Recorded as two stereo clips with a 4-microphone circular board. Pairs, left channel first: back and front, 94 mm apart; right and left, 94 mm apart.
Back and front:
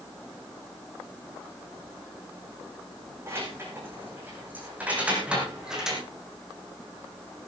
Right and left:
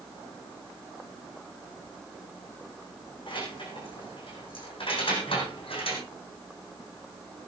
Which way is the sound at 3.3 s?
65° right.